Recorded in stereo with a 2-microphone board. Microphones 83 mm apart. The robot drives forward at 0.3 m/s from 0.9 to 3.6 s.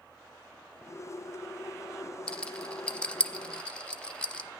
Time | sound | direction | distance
2.3 | a rattle | 15° left (ahead or behind) | 0.7 m